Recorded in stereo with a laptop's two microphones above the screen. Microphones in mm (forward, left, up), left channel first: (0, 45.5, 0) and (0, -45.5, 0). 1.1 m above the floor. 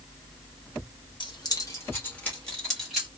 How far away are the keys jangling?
About 0.7 m.